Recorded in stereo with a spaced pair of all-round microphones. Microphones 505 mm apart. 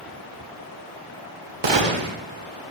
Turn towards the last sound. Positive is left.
turn(degrees=-60)  # may be behind; listen again after turning